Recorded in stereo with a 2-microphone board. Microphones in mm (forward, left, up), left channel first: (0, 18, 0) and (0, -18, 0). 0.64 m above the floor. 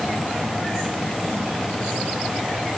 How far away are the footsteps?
No footsteps in this recording.